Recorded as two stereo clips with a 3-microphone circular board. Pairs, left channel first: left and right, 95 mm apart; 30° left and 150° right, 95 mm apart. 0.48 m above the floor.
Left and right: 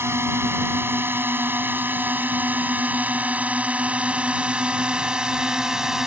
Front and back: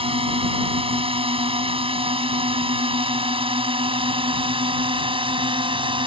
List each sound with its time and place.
0.0 s a drone: 155° right; by 6.1 s 175° right